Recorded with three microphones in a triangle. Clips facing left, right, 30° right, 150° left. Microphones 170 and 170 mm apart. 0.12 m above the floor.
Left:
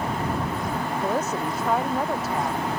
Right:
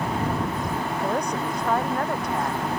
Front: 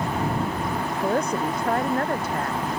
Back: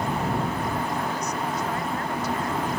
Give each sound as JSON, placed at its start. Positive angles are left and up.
{"t": 1.0, "sound": "a woman speaking", "azimuth_deg": 5}